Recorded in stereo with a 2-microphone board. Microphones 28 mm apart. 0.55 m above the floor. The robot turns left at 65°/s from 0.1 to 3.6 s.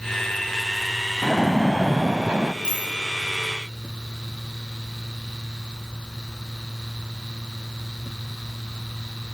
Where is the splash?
10° right, 0.6 m; by 2.5 s 95° right, 0.6 m.